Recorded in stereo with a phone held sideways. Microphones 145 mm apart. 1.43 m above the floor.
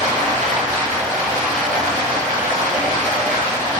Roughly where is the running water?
Right.